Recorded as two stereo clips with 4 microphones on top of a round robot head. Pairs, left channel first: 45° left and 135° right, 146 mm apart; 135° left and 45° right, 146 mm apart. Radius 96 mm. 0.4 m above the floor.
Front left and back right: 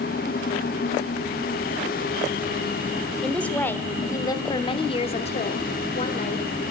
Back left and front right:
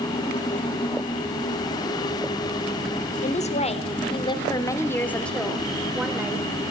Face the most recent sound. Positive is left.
turn(degrees=25)